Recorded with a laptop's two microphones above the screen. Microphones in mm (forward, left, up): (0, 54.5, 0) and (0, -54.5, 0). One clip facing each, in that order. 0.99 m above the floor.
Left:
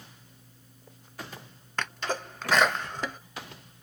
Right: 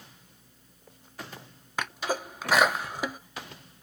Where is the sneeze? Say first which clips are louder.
Right 1 dB; 10° right (ahead or behind), 0.6 m.